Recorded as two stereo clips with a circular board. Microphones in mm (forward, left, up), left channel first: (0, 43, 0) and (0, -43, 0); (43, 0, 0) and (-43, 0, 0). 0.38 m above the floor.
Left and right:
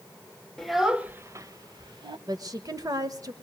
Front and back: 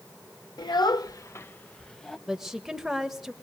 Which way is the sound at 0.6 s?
5° left.